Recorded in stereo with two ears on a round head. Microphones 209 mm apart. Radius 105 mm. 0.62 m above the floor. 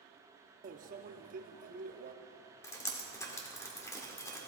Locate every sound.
0.6 s a microwave: 35° right (ahead or behind), 0.7 m
2.6 s dripping: 15° left (ahead or behind), 1.7 m